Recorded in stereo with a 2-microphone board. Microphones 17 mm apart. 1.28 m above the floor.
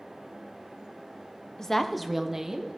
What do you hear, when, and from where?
1.6 s a woman speaking: 35° left (ahead or behind), 0.7 m; by 2.8 s 35° right (ahead or behind), 1.2 m